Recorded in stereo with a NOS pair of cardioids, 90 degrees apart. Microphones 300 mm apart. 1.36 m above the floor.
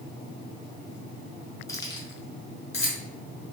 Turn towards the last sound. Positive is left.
turn(degrees=25)